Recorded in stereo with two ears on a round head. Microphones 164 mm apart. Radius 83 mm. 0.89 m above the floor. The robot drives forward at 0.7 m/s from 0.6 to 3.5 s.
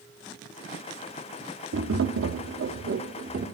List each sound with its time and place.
1.7 s tapping: 70° right (ahead or behind), 0.9 m; by 3.5 s 45° right (ahead or behind), 1.3 m